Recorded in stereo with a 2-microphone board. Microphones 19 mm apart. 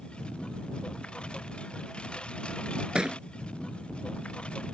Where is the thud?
50° right (ahead or behind).